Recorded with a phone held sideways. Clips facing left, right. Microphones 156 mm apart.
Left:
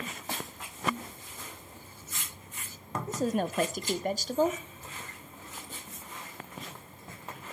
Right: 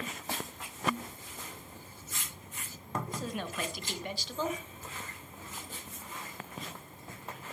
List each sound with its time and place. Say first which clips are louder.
3.1 s a woman speaking: left 8 dB; 45° left (ahead or behind), 0.6 m